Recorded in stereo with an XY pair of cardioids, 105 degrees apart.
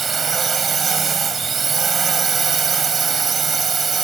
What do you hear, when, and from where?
0.0 s a drone: 40° right